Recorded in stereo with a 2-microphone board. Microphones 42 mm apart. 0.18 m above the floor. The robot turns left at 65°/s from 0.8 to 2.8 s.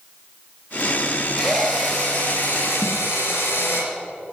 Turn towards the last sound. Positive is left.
turn(degrees=30)  # may be behind; listen again after turning